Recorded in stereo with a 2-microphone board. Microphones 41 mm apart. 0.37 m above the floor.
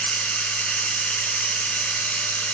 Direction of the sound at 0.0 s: 40° left (ahead or behind).